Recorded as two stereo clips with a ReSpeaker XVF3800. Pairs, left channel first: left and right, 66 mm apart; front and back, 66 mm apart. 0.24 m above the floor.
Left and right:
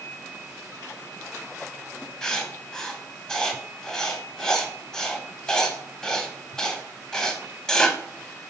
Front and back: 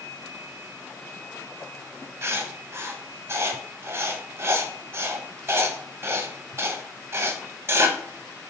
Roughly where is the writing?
Behind.